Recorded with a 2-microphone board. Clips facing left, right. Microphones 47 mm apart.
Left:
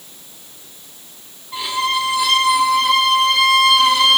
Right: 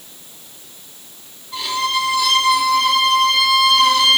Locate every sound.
1.5 s a violin: 20° left (ahead or behind), 0.9 m